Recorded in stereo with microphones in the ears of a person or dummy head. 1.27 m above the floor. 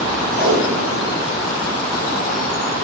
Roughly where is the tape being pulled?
Right.